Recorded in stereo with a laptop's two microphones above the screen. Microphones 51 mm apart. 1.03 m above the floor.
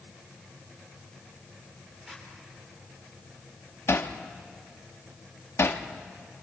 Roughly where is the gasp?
I don't hear a gasp.